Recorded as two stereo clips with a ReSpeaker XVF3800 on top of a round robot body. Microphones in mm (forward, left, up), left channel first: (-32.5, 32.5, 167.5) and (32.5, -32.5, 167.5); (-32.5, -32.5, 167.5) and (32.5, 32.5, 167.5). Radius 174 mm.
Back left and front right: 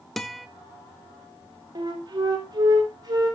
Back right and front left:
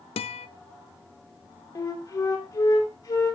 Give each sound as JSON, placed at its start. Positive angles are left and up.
{"t": 0.2, "sound": "a guitar", "azimuth_deg": -135, "distance_m": 0.7}
{"t": 1.8, "sound": "a flute", "azimuth_deg": -90, "distance_m": 3.5}